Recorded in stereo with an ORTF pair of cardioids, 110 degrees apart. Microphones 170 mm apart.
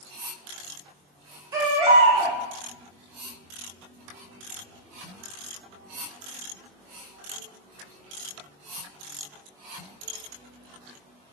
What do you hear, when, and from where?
1.5 s a baby crying: 20° right, 1.0 m